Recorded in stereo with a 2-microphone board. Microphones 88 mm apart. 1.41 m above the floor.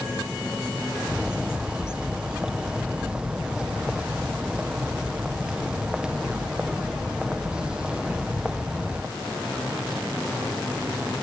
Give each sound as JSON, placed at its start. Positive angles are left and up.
{"t": 1.1, "sound": "a bird", "side_deg": -10, "distance_m": 1.1}